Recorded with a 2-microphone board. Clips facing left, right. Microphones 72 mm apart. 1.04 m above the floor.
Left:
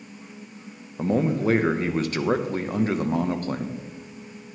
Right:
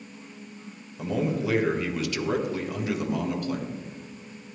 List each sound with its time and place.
1.0 s a man speaking: 40° left (ahead or behind), 0.9 m